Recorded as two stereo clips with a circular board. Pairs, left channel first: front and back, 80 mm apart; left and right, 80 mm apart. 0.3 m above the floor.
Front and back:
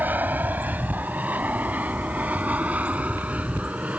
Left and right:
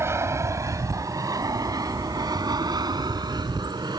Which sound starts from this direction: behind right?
An aircraft, at 0.0 s.